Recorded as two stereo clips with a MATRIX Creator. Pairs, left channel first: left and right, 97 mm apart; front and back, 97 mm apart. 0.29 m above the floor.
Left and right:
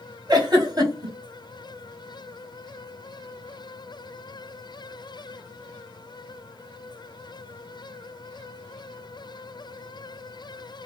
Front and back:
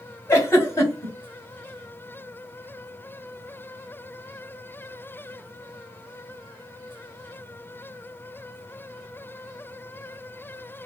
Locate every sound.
0.3 s a giggle: 55° right, 1.2 m